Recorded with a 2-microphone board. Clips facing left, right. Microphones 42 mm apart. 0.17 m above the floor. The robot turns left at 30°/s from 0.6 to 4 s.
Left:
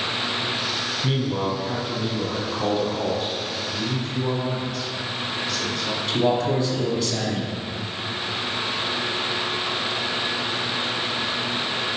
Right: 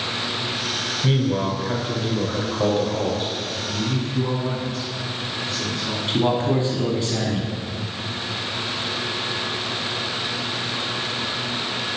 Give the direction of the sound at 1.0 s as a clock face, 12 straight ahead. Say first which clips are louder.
Right 4 dB; 1 o'clock.